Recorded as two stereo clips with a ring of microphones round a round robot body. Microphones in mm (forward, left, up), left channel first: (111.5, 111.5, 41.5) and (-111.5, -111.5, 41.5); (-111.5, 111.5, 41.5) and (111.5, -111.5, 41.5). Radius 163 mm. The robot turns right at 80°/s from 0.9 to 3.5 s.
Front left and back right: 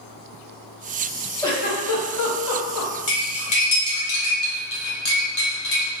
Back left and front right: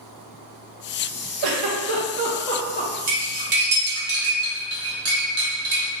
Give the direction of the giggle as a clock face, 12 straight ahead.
1 o'clock.